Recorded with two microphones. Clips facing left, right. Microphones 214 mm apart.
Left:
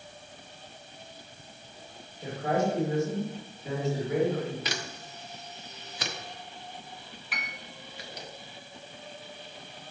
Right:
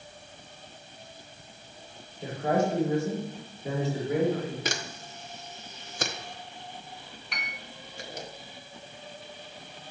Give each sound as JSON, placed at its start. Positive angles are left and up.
{"t": 2.2, "sound": "a man speaking", "side_deg": -35, "distance_m": 3.5}
{"t": 4.7, "sound": "a camera shutter", "side_deg": -45, "distance_m": 0.6}
{"t": 7.3, "sound": "a piano", "side_deg": 5, "distance_m": 0.7}